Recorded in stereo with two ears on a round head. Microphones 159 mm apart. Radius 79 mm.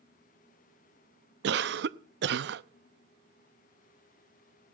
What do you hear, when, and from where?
1.4 s a cough: 65° right (ahead or behind), 0.8 m